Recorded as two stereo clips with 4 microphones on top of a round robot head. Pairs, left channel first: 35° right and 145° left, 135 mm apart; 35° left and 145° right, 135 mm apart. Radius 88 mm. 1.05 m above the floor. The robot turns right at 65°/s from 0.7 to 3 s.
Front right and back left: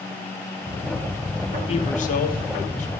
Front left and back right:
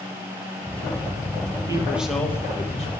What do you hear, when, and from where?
1.7 s a man speaking: 80° right, 1.5 m; by 2.9 s straight ahead, 1.5 m